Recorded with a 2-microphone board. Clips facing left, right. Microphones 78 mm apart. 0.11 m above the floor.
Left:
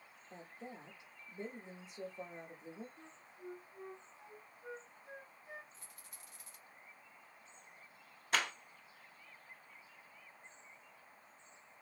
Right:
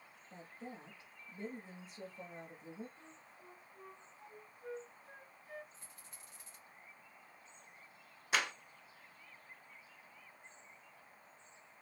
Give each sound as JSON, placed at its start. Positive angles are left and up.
{"t": 0.3, "sound": "a woman speaking", "side_deg": 20, "distance_m": 1.2}
{"t": 3.0, "sound": "a flute", "side_deg": 20, "distance_m": 0.8}
{"t": 5.7, "sound": "a rattle", "side_deg": -30, "distance_m": 2.0}
{"t": 8.3, "sound": "a clap", "side_deg": -5, "distance_m": 1.0}